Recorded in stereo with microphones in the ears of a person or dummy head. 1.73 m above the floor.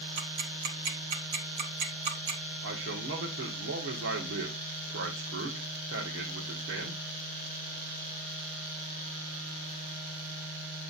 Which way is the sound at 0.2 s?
60° right (ahead or behind).